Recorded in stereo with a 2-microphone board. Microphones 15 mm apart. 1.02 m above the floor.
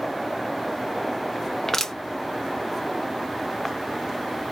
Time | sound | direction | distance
1.7 | crushing | 25° left (ahead or behind) | 0.6 m